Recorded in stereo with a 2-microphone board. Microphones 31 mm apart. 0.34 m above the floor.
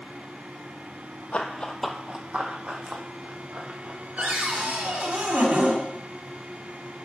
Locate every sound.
1.3 s running footsteps: 45° left (ahead or behind), 0.8 m; by 5.0 s 70° right (ahead or behind), 3.5 m
4.2 s a cupboard door: 65° right (ahead or behind), 1.5 m